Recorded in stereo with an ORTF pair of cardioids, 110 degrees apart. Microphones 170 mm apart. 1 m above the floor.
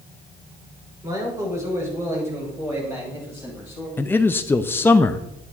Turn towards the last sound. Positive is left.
turn(degrees=15)